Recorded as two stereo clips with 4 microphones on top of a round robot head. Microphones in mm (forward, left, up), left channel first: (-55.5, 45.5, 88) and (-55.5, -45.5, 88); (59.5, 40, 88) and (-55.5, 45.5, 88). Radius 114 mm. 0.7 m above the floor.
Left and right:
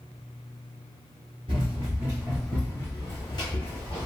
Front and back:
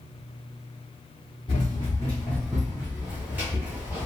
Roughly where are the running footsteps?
Ahead right.